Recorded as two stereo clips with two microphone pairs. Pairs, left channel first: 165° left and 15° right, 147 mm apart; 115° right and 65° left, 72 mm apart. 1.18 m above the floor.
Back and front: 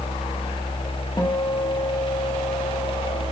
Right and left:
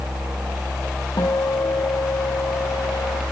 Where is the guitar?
135° right, 1.5 m.